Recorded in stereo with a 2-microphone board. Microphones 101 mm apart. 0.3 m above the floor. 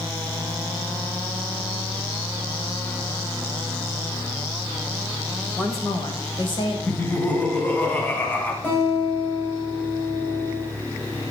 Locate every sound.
5.6 s a woman speaking: 20° left (ahead or behind), 1.3 m; by 6.8 s 55° left (ahead or behind), 2 m
6.9 s laughter: 15° left (ahead or behind), 2 m
8.6 s a guitar: 20° left (ahead or behind), 6.5 m